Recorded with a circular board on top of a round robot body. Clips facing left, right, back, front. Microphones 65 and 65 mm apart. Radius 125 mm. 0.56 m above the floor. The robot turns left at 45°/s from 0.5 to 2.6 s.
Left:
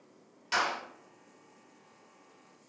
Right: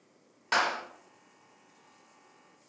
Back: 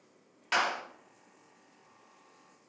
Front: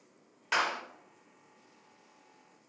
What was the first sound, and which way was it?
A clap, 85° right.